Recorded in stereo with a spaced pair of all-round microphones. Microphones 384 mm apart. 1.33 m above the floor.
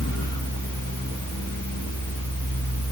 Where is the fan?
50° left (ahead or behind), 1.6 m.